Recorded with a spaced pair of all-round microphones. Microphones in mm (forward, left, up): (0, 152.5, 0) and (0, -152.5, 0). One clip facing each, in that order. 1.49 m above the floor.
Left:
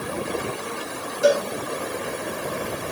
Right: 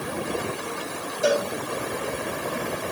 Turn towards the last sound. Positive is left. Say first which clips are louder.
# left 3 dB
turn(degrees=75)  # may be behind; listen again after turning